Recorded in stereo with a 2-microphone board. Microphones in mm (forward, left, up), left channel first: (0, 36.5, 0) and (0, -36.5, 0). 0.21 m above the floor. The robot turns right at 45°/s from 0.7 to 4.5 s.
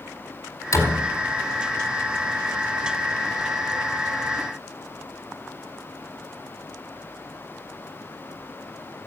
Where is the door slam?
40° left (ahead or behind), 4.5 m; by 1.1 s 25° left (ahead or behind), 4.5 m.